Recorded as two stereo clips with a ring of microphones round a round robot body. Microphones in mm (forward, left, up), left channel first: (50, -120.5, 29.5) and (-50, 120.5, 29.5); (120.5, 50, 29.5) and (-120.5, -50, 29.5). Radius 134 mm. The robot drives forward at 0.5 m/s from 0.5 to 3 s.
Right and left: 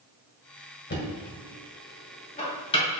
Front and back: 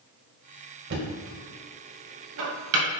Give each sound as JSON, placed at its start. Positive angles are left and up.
{"t": 0.9, "sound": "knocking", "azimuth_deg": -115, "distance_m": 1.8}